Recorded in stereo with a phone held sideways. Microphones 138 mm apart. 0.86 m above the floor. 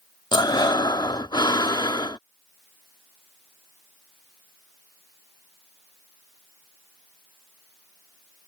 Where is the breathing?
30° left (ahead or behind).